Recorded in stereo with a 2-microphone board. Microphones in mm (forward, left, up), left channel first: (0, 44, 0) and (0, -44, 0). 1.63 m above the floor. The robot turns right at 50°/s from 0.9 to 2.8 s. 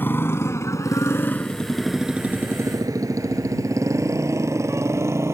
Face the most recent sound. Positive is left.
turn(degrees=-30)  # may be behind; listen again after turning